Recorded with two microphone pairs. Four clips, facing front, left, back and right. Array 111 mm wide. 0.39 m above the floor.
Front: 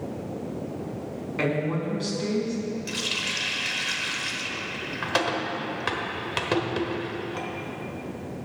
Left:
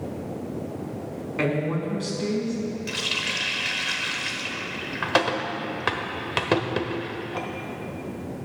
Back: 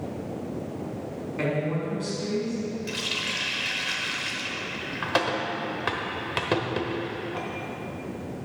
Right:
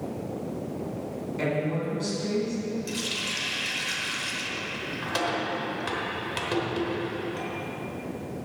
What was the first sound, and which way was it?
A woman speaking, 55° left.